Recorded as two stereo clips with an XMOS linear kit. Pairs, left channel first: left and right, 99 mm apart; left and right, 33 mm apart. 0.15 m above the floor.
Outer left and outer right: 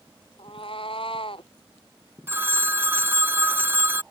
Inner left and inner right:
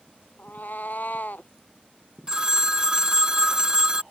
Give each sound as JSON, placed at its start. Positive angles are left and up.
{"t": 0.4, "sound": "a cat meowing", "side_deg": 65}
{"t": 2.3, "sound": "a phone ringing", "side_deg": -25}